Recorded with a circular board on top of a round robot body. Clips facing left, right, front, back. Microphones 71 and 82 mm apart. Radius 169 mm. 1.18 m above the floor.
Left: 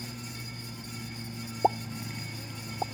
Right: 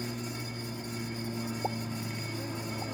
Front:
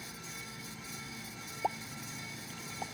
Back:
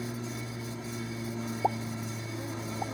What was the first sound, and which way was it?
An aircraft, 145° right.